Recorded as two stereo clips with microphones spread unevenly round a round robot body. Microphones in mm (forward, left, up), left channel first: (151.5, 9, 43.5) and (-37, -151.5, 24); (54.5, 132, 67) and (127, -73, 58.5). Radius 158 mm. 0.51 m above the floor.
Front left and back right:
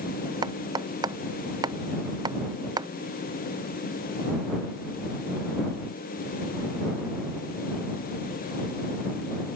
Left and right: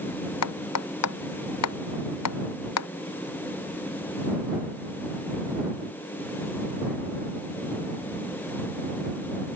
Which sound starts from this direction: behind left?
Hammering, at 0.4 s.